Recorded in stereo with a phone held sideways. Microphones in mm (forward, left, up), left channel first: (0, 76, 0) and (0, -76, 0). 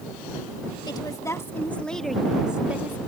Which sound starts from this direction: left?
A woman speaking, at 0.8 s.